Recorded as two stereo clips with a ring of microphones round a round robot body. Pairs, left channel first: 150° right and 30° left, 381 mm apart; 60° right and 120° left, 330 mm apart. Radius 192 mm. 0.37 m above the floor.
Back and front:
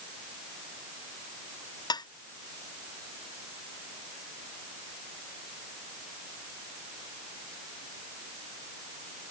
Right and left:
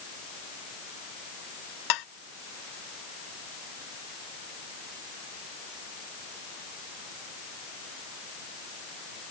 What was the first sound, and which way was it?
Dishes clattering, 70° right.